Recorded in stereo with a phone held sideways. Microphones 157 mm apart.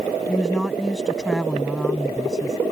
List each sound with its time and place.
0.3 s a woman speaking: centre (ahead or behind)